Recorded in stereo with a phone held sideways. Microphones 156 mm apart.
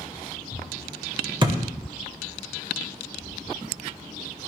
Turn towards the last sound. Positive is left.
turn(degrees=-30)  # may be behind; listen again after turning